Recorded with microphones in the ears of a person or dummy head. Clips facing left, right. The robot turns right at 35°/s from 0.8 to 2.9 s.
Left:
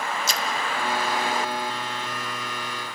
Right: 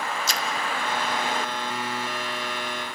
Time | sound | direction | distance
0.3 | a splash | 80° left | 1.3 m